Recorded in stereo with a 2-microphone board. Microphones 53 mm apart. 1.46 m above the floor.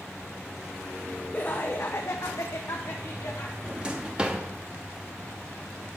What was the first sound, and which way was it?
Laughter, 35° left (ahead or behind).